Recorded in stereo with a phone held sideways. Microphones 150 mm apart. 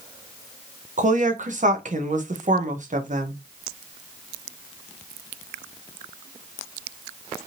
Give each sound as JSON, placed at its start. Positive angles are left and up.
{"t": 1.0, "sound": "a woman speaking", "side_deg": -50, "distance_m": 0.9}